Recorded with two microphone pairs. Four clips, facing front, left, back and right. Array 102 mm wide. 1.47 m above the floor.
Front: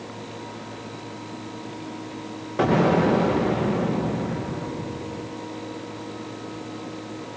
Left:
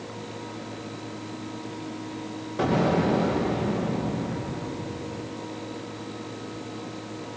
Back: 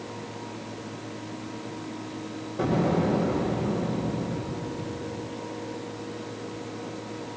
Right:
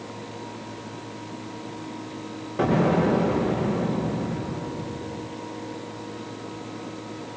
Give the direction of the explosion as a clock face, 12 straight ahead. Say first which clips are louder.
Right 2 dB, front 6 dB; 12 o'clock.